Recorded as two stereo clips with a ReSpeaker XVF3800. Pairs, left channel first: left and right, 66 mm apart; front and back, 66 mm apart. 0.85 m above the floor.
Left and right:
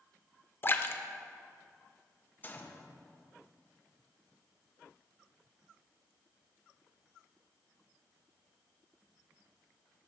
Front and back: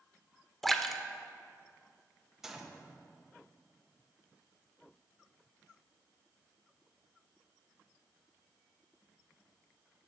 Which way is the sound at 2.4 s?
105° left.